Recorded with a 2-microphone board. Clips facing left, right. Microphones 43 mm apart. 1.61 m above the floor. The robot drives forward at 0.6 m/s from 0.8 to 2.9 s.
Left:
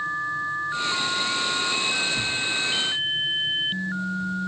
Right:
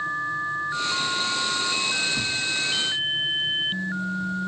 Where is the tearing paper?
55° right (ahead or behind), 2.5 m; by 4.3 s 65° right (ahead or behind), 2 m.